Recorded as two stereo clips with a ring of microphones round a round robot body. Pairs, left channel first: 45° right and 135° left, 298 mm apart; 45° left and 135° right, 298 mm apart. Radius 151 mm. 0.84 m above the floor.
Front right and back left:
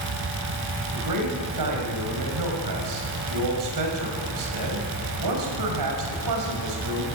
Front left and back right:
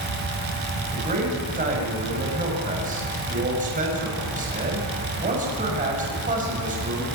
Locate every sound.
0.9 s a man speaking: 160° left, 6 m